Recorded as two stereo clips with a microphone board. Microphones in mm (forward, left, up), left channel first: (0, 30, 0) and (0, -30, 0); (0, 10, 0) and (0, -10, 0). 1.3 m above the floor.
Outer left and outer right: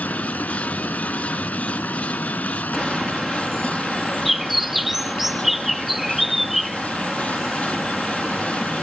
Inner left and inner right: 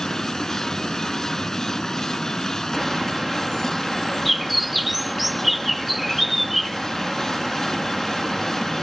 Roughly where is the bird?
Centre.